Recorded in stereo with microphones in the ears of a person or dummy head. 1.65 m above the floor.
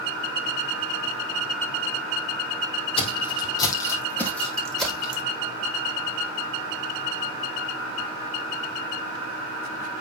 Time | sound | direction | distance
3.0 | footsteps | 35° left (ahead or behind) | 3.5 m